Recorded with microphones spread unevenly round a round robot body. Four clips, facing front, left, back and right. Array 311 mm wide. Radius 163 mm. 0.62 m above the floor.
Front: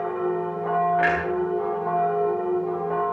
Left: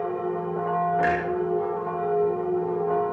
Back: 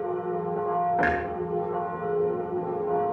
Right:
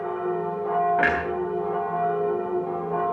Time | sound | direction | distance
1.0 | a clunk | 160° right | 3 m